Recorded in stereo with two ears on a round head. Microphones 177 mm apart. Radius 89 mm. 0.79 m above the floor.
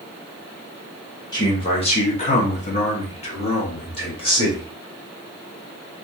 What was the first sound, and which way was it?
A man speaking, 20° left (ahead or behind).